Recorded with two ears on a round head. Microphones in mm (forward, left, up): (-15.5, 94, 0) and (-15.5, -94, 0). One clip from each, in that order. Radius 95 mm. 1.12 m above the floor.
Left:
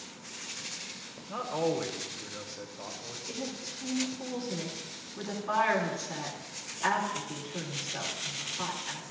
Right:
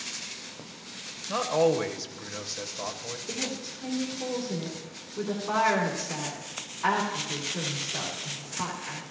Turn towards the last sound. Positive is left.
turn(degrees=25)  # may be behind; listen again after turning